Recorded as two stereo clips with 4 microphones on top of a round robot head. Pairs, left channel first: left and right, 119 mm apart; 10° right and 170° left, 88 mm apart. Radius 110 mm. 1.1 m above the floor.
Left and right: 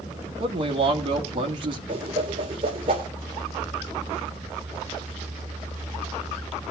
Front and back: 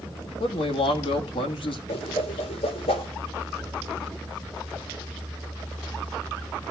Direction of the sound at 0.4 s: 40° right.